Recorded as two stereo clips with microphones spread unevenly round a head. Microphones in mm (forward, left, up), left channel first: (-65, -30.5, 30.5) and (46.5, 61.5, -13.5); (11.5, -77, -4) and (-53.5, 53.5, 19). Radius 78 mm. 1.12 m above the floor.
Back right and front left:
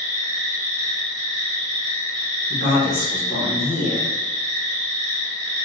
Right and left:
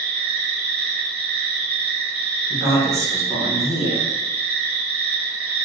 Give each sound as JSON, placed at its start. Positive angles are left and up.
{"t": 0.0, "sound": "an insect", "azimuth_deg": 30, "distance_m": 1.4}
{"t": 2.5, "sound": "a man speaking", "azimuth_deg": -170, "distance_m": 1.3}